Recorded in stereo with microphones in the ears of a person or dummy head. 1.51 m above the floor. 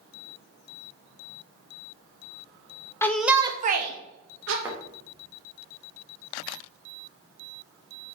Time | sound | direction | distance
3.0 | a shout | 15° left (ahead or behind) | 0.7 m
4.6 | a thud | 10° right (ahead or behind) | 1.0 m